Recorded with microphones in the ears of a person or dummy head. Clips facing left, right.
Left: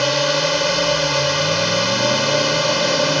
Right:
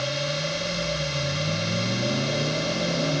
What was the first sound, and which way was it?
A drone, 80° left.